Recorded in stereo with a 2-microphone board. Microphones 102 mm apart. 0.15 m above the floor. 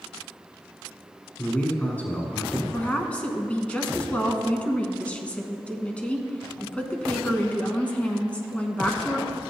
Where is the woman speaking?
15° left (ahead or behind), 1.1 m.